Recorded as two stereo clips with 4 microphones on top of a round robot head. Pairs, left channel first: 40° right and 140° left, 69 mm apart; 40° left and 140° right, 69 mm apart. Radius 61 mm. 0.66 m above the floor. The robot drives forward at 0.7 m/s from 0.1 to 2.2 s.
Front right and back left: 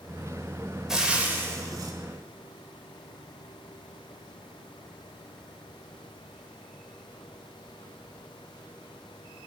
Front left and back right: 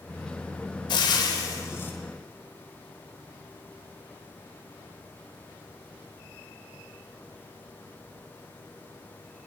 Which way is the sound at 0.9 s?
55° left.